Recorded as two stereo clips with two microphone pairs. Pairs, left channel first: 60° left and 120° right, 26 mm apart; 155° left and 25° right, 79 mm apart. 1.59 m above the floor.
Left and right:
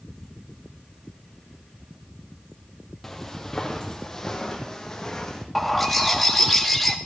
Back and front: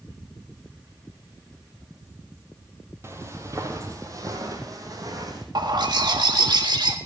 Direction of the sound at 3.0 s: 15° right.